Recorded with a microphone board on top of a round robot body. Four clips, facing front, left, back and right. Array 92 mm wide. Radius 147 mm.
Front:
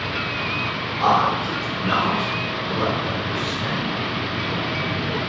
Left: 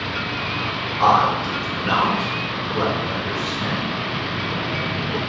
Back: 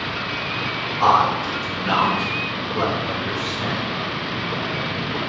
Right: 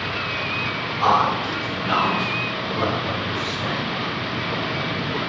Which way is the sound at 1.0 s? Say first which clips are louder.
Left 2 dB, back 2 dB; 110° left.